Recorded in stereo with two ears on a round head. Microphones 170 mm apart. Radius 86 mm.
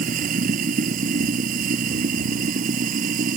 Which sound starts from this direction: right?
Running water, at 0.0 s.